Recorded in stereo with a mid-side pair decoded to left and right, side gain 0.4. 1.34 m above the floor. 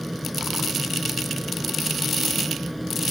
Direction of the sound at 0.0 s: Straight ahead.